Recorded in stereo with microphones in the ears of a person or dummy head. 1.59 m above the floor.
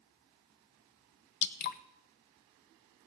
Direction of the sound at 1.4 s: 45° left (ahead or behind).